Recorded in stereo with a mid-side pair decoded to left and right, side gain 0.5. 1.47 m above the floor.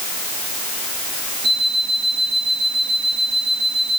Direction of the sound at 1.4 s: 60° right.